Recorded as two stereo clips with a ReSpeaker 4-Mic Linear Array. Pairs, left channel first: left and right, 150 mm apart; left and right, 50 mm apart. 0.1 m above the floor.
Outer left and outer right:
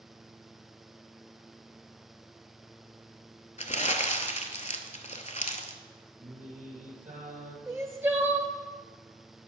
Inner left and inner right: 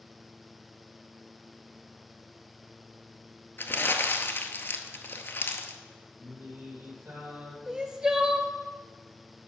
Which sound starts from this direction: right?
Singing, at 6.2 s.